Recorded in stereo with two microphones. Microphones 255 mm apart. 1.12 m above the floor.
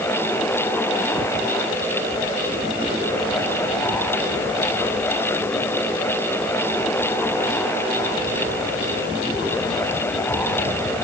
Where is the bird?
I don't hear a bird.